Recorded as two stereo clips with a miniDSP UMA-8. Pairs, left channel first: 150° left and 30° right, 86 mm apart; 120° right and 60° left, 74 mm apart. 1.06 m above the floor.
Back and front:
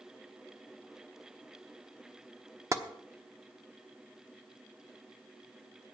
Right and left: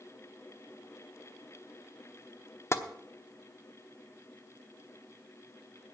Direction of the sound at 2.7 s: 80° right.